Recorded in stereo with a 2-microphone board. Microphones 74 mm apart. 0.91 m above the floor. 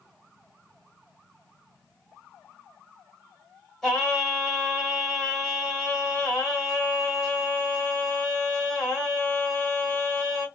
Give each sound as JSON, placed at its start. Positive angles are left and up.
{"t": 3.8, "sound": "singing", "side_deg": 5, "distance_m": 1.6}